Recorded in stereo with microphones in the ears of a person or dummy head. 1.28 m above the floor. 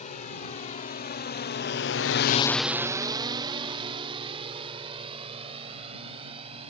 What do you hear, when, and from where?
0.0 s a drone: 40° left (ahead or behind); by 6.7 s 35° right (ahead or behind)